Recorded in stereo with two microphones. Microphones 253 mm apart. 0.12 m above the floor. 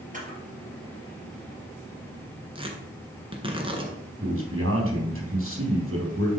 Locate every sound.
0.1 s a camera shutter: 30° right (ahead or behind), 3 m
2.5 s tearing paper: 20° right (ahead or behind), 1.7 m
4.2 s a man speaking: 55° right (ahead or behind), 4 m